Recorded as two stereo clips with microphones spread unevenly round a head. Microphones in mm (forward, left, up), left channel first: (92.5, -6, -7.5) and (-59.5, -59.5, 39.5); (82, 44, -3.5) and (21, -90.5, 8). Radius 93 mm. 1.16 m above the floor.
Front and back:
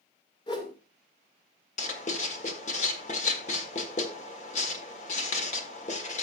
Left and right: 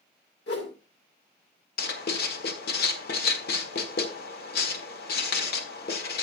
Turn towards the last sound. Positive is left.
turn(degrees=80)